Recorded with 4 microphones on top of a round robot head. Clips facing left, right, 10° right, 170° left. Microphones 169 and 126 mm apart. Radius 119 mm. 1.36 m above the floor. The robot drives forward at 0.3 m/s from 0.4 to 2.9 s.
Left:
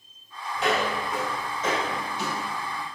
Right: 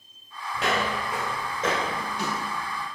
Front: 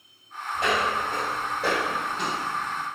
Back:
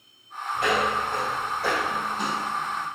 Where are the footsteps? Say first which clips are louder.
Left 1 dB, back 1 dB; 85° right, 1.9 m; by 2.9 s 60° right, 1.5 m.